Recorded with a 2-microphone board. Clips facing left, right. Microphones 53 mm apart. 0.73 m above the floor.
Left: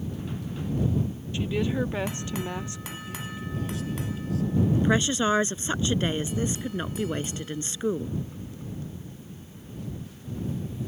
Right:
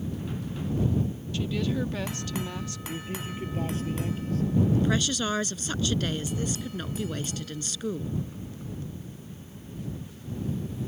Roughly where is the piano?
I don't hear a piano.